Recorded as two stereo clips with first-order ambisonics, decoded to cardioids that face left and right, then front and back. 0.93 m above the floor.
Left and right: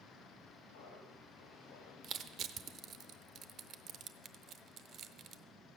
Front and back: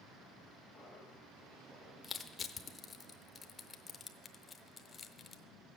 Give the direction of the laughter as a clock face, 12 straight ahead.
9 o'clock.